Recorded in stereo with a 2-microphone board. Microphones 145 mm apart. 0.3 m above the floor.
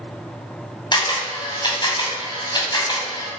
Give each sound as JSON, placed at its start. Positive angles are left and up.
{"t": 0.9, "sound": "a camera shutter", "side_deg": 35, "distance_m": 2.0}